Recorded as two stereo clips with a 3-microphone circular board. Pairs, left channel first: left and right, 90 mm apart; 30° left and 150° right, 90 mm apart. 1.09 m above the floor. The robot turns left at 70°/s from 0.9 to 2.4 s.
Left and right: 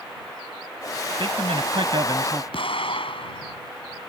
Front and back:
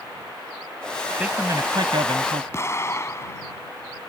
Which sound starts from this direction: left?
An explosion, at 2.5 s.